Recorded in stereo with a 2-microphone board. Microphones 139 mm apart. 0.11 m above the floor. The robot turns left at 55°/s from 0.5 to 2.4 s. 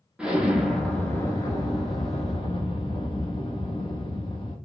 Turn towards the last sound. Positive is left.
turn(degrees=85)